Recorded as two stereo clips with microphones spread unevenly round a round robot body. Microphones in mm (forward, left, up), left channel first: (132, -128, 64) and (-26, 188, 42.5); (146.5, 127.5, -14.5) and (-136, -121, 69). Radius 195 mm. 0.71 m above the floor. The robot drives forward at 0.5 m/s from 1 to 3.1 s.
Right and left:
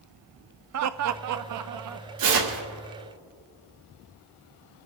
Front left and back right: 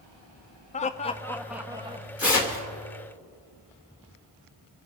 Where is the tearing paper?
130° left, 2.5 m; by 2.6 s 135° left, 2.5 m.